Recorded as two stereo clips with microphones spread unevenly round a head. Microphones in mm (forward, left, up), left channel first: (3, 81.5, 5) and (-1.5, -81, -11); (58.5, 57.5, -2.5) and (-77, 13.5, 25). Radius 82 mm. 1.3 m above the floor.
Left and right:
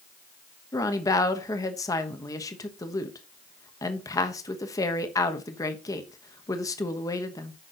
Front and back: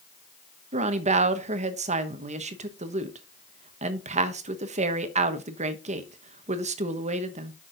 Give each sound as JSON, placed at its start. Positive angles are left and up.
{"t": 0.7, "sound": "a woman speaking", "azimuth_deg": 160, "distance_m": 1.1}